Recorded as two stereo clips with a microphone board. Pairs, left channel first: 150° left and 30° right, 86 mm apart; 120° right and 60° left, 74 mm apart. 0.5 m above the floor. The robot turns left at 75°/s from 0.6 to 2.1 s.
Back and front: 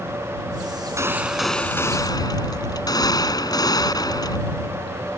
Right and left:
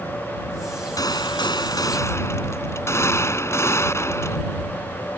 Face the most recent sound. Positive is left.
turn(degrees=-170)